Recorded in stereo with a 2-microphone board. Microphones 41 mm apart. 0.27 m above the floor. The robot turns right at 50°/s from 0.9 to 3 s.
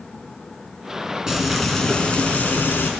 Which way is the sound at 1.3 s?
15° right.